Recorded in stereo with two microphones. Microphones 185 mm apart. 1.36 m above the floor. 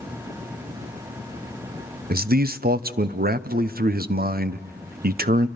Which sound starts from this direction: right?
A man speaking, at 2.1 s.